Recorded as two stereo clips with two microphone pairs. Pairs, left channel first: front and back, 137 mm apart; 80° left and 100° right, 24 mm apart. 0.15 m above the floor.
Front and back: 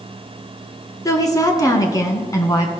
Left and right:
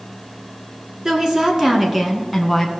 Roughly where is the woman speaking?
Ahead right.